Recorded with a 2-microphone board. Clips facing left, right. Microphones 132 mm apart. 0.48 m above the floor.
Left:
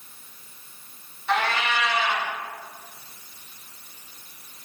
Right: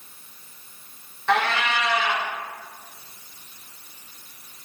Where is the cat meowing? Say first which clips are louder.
Right 2 dB; 85° right, 3 m.